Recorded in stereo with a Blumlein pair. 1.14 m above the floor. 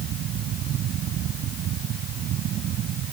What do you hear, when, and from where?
0.0 s a fan: 30° right